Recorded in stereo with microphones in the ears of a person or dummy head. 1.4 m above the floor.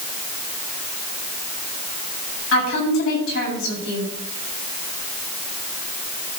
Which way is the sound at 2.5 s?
75° left (ahead or behind).